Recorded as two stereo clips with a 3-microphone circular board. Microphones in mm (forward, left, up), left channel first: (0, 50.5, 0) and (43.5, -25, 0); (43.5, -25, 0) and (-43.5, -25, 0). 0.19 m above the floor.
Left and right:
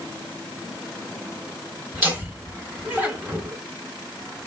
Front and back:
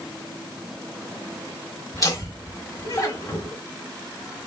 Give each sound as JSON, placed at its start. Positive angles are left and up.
{"t": 1.9, "sound": "laughter", "azimuth_deg": 0, "distance_m": 2.0}